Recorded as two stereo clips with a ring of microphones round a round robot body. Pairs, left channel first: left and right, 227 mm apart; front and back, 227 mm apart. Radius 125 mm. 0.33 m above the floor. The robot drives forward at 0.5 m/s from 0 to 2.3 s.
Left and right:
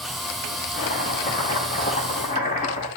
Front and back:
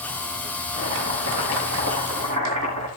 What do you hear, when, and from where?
0.7 s chopping: 145° left, 8 m